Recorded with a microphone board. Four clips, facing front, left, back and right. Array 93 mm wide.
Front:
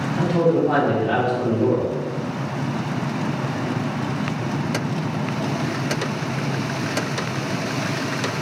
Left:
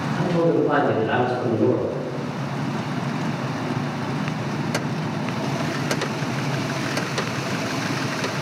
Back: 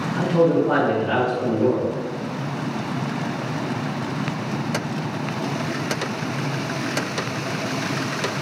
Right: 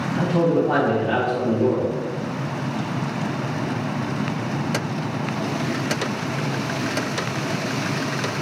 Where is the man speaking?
170° right, 1.4 m; by 1.9 s 60° left, 1.2 m.